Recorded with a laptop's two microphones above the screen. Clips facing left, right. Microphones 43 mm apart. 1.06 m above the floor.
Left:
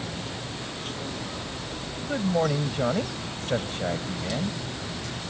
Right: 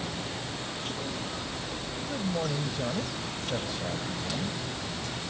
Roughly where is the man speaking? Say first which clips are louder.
Left 7 dB; left.